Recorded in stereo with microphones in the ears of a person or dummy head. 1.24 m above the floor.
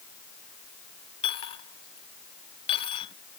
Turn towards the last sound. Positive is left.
turn(degrees=30)  # may be behind; listen again after turning